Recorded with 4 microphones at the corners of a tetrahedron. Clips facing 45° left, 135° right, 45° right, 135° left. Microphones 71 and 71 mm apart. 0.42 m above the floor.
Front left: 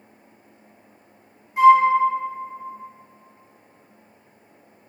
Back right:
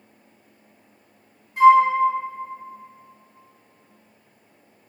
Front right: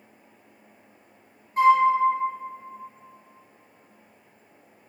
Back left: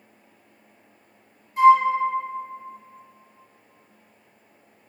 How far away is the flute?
About 1.3 m.